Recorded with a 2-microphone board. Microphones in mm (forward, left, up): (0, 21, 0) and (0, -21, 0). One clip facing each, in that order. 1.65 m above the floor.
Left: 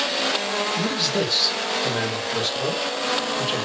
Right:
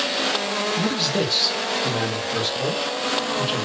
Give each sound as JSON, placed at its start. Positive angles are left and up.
{"t": 0.8, "sound": "a man speaking", "side_deg": -5, "distance_m": 0.8}